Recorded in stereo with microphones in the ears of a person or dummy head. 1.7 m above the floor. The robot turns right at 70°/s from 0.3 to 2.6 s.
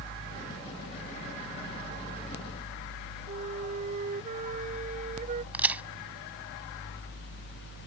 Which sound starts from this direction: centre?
A crack, at 5.5 s.